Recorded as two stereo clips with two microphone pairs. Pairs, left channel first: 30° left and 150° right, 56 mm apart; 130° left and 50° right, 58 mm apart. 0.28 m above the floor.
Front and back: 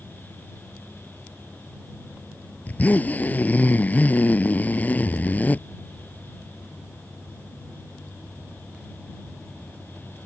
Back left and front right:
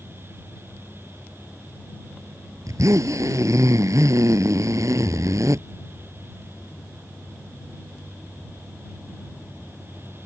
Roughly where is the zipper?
Ahead right.